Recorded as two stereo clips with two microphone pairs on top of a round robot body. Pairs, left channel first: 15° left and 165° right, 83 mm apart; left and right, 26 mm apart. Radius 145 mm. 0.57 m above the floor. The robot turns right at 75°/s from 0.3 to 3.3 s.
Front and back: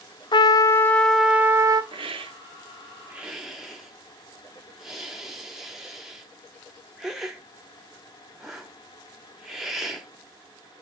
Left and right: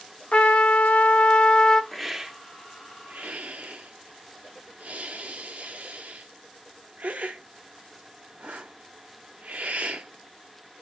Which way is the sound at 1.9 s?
Straight behind.